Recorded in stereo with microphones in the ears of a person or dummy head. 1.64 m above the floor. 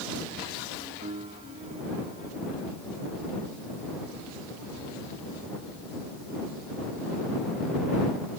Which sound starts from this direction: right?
A piano, at 1.0 s.